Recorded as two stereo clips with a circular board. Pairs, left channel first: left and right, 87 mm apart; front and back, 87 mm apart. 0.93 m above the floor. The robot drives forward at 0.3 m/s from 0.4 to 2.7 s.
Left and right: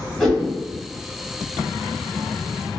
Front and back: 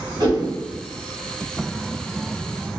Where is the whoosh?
175° left, 1.2 m.